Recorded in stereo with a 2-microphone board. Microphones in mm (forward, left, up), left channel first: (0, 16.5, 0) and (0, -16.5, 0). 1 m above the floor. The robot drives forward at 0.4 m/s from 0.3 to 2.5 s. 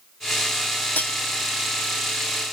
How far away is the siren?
No siren in this recording.